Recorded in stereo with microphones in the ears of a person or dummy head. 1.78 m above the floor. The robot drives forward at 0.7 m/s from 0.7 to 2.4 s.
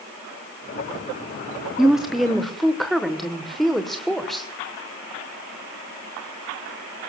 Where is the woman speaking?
5° right (ahead or behind), 0.8 m.